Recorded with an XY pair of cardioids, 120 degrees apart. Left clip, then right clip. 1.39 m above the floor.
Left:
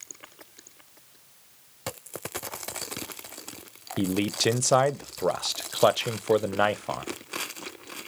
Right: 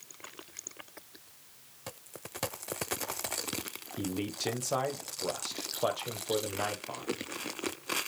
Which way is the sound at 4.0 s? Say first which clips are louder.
Left 10 dB; 60° left.